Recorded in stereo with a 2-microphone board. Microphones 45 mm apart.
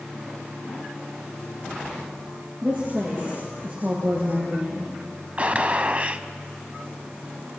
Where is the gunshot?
35° right (ahead or behind), 0.6 m.